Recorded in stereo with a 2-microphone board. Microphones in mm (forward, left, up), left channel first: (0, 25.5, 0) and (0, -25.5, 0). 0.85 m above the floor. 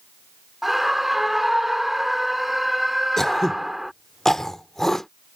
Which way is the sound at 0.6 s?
5° right (ahead or behind).